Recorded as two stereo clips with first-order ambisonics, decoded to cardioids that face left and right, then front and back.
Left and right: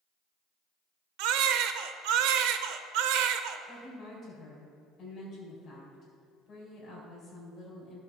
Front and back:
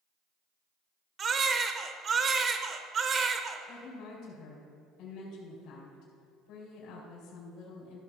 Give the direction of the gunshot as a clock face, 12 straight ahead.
No gunshot in this recording.